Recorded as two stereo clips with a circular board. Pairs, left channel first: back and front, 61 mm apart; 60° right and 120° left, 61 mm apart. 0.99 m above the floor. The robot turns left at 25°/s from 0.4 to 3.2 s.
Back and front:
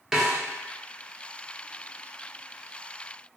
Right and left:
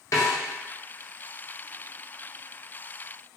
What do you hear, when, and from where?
0.1 s a snare drum: 85° right, 0.6 m